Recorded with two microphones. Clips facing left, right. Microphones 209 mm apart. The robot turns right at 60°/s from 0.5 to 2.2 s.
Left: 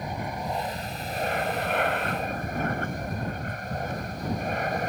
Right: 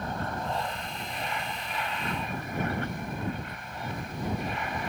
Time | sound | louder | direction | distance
0.0 | an aircraft | left 1 dB | 15° left | ?